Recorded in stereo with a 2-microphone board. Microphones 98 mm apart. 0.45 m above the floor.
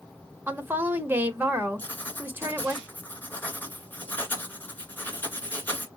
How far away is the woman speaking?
About 1.0 m.